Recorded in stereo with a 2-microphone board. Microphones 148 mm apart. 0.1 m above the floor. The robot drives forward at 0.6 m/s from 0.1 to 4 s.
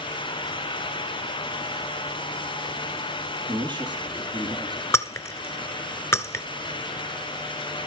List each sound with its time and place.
3.5 s a woman speaking: 35° right (ahead or behind), 3 m; by 4.8 s 30° right (ahead or behind), 3 m
4.9 s breaking glass: 20° left (ahead or behind), 0.8 m